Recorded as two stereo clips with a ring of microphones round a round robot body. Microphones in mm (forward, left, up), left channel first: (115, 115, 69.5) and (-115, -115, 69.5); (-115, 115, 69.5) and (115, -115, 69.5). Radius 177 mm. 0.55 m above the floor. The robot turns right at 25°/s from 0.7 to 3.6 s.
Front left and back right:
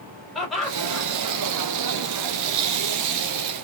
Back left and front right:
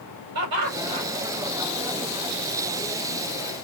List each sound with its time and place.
0.3 s laughter: 45° right, 4 m; by 1.1 s 35° right, 4 m